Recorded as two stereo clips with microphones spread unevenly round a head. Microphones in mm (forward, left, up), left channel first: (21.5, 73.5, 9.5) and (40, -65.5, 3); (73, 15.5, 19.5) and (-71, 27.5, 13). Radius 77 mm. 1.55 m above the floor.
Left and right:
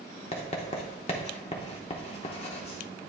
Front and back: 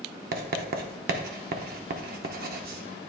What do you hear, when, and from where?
0.3 s writing: 155° left, 0.7 m